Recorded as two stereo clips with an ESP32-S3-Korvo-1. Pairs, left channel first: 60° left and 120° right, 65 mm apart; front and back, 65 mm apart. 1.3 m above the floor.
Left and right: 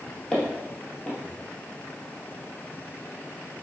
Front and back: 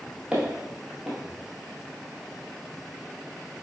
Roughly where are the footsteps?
Behind left.